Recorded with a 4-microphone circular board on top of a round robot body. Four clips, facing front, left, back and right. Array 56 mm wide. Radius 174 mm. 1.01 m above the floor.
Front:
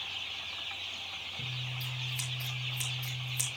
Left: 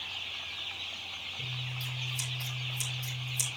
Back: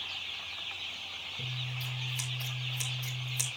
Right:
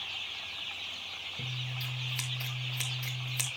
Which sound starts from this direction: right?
Scissors, at 1.4 s.